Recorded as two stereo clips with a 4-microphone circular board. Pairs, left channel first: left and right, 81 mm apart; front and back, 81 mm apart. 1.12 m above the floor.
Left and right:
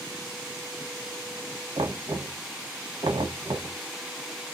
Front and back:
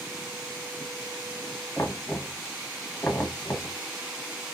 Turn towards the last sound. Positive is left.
turn(degrees=-65)